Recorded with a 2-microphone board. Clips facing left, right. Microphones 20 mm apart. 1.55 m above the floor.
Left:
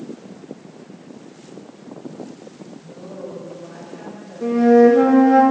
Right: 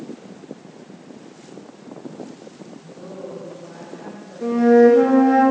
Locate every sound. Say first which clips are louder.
2.7 s a woman speaking: even; 20° left (ahead or behind), 7.5 m
4.4 s a flute: left 1 dB; 10° left (ahead or behind), 2.5 m